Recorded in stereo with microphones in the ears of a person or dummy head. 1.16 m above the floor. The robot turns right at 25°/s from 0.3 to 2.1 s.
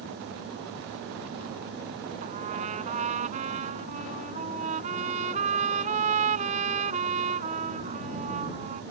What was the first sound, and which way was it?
A trumpet, 35° right (ahead or behind).